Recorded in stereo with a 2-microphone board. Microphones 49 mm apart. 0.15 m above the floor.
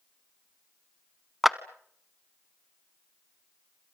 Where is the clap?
5° right (ahead or behind), 0.8 m.